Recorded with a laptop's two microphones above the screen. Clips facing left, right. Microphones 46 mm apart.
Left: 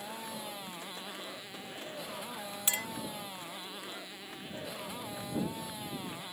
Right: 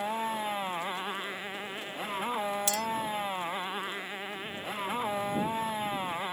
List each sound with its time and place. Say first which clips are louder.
0.0 s a motorcycle: right 10 dB; 45° right (ahead or behind)
2.7 s a clink: right 5 dB; 25° left (ahead or behind)